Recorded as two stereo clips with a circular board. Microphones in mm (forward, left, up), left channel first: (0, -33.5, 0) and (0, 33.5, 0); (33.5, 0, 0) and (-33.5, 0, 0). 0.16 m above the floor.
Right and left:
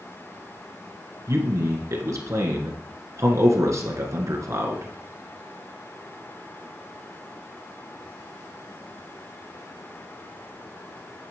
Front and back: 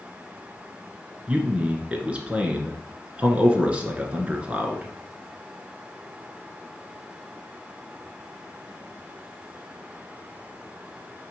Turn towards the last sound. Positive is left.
turn(degrees=115)